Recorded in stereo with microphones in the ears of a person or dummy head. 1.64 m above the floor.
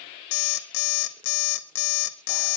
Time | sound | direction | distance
0.3 | an alarm clock | 60° left (ahead or behind) | 1.4 m